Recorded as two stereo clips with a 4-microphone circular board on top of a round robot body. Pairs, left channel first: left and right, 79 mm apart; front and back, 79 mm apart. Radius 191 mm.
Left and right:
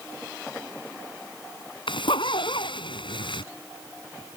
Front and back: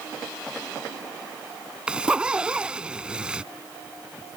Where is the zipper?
100° left.